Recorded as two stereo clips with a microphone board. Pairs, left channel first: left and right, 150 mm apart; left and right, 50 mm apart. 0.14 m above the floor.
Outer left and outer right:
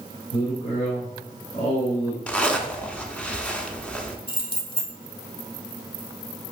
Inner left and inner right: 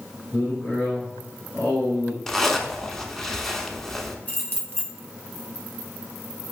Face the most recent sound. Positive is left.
turn(degrees=35)  # may be behind; listen again after turning